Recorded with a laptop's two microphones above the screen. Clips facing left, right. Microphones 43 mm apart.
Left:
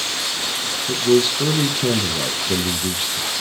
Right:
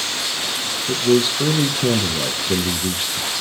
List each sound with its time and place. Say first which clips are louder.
0.9 s a man speaking: even; 5° right (ahead or behind), 0.8 m